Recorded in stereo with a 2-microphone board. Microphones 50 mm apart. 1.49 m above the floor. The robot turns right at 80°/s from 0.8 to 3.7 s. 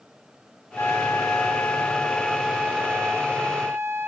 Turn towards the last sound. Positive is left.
turn(degrees=-65)